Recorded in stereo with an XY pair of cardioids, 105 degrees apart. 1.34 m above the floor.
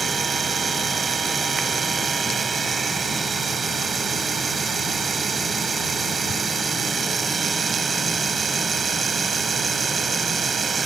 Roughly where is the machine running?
Ahead right.